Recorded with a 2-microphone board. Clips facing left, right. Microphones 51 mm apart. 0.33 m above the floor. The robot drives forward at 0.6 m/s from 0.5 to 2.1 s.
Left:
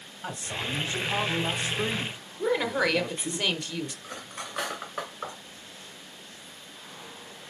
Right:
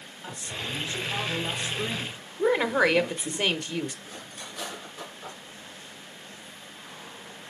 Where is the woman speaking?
20° right (ahead or behind), 0.8 m.